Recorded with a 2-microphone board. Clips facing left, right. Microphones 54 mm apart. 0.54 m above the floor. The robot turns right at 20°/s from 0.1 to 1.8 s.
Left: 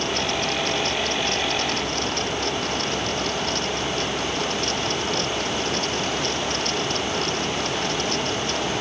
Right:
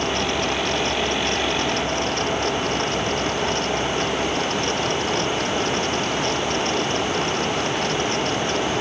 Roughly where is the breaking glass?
No breaking glass in this recording.